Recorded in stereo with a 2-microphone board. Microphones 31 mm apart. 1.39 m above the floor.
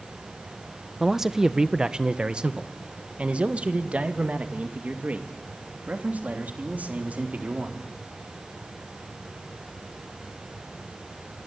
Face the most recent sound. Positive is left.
turn(degrees=-60)  # may be behind; listen again after turning